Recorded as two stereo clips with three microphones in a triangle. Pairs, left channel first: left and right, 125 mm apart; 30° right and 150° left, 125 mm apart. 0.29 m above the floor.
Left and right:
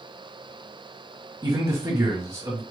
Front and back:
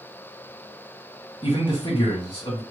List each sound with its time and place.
1.4 s a man speaking: 55° right, 2 m